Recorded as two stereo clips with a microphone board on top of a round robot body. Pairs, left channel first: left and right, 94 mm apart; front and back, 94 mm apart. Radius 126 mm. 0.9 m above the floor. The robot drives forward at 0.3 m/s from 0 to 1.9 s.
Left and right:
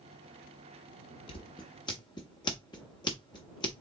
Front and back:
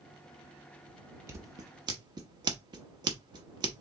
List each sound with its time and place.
1.3 s scissors: 120° left, 0.6 m; by 3.8 s 135° left, 0.7 m